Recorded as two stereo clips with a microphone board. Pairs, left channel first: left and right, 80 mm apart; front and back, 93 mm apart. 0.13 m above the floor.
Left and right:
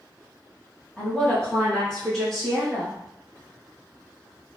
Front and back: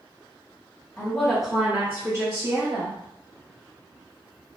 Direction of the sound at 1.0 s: 40° left.